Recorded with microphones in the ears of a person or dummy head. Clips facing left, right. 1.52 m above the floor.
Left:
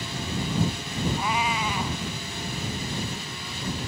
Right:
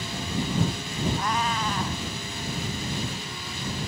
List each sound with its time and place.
1.2 s a cat meowing: 5° left (ahead or behind)